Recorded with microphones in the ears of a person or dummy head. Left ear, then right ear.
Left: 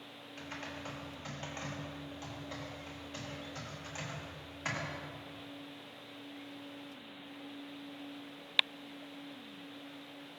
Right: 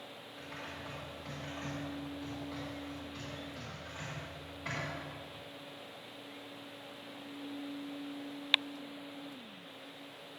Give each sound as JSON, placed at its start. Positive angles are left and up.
{"t": 0.4, "sound": "typing on a keyboard", "side_deg": 50, "distance_m": 2.0}